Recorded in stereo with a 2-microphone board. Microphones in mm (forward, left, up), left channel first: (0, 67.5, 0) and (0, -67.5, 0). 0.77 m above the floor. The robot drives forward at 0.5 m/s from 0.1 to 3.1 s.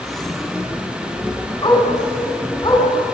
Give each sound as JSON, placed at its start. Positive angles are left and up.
{"t": 1.6, "sound": "a dog barking", "side_deg": 35, "distance_m": 3.5}